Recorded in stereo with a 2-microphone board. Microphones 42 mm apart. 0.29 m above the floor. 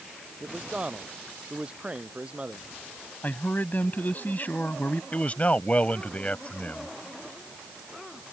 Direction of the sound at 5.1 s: 35° left (ahead or behind).